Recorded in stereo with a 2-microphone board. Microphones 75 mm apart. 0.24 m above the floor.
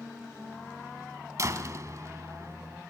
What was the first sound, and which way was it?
A door slam, 45° right (ahead or behind).